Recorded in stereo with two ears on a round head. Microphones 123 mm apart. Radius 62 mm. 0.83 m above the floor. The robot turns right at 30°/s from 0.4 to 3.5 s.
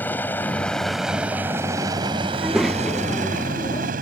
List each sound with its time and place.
0.0 s a helicopter: 15° left (ahead or behind); by 4.0 s 70° right (ahead or behind)
2.3 s a child speaking: 10° right; by 3.9 s 25° left